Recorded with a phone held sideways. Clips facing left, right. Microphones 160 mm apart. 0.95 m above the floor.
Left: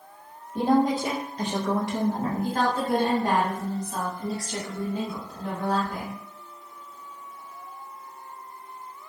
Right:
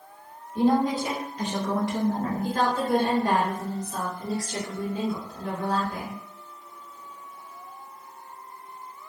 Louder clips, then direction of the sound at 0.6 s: Even; 50° left (ahead or behind).